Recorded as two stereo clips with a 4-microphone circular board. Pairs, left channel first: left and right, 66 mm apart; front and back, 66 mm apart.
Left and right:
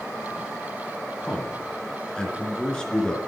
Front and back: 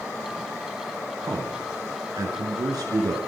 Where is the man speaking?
170° left, 3.5 m.